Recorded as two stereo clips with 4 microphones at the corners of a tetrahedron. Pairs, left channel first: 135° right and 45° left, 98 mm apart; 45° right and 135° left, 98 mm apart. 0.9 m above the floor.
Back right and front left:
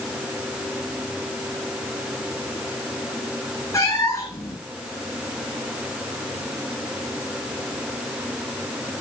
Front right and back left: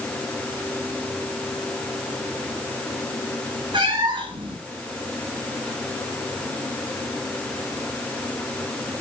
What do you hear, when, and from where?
3.7 s a cat meowing: 165° left, 4 m